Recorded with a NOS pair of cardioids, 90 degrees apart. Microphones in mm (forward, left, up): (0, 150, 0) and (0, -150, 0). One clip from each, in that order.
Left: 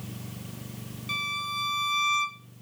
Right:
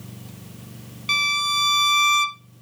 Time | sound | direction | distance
1.1 | a violin | 60° right | 0.7 m